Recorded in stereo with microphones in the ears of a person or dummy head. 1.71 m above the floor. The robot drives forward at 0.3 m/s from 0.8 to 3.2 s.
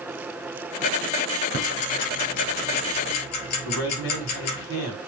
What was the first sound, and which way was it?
Ticking, 55° left (ahead or behind).